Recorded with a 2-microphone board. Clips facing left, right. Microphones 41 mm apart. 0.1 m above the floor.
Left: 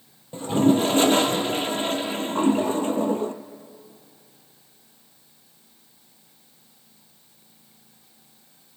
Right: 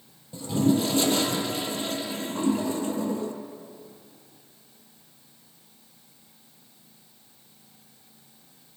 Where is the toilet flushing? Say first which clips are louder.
Left 4 dB; 40° left (ahead or behind), 0.6 m.